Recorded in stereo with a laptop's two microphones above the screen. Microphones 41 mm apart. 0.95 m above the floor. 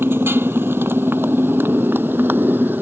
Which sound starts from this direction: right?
A motorcycle, at 0.0 s.